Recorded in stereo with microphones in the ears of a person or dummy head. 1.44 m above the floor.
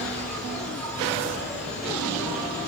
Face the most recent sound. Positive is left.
turn(degrees=5)  # may be behind; listen again after turning